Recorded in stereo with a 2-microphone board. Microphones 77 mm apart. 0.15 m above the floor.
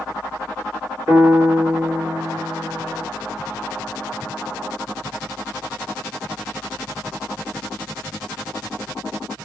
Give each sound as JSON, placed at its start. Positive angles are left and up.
{"t": 1.1, "sound": "a piano", "side_deg": -40, "distance_m": 2.0}